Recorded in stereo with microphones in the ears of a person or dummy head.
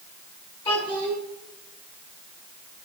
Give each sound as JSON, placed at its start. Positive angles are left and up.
{"t": 0.7, "sound": "a child speaking", "side_deg": 30, "distance_m": 7.0}